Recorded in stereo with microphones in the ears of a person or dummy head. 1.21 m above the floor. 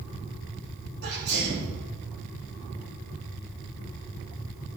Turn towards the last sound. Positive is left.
turn(degrees=-60)  # may be behind; listen again after turning